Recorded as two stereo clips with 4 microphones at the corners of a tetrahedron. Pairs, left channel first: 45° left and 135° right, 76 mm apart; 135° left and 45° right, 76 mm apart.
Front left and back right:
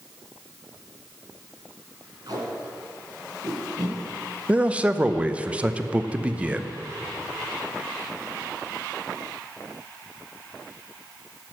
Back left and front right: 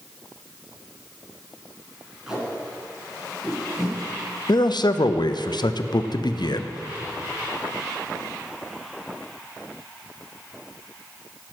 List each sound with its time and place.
2.3 s tape being pulled: 125° right, 2.5 m
4.5 s a man speaking: 150° left, 0.5 m